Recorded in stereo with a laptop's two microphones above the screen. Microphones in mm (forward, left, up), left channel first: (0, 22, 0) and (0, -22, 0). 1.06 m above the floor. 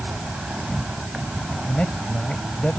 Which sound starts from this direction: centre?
An insect, at 0.0 s.